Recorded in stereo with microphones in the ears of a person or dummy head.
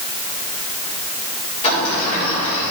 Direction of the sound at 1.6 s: 35° left (ahead or behind).